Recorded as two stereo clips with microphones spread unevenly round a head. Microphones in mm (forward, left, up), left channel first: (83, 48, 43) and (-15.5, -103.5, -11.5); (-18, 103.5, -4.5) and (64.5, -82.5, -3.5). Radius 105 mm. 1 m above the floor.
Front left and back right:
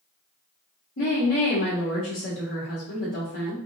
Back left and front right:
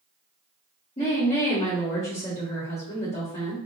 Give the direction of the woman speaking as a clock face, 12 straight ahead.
10 o'clock.